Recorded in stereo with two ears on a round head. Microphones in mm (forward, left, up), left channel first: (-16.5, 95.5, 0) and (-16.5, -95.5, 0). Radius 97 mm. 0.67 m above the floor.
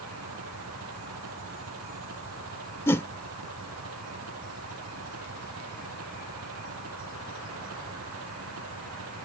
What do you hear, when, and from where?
0.0 s an engine running: 85° right
2.9 s a whoosh: 15° left (ahead or behind)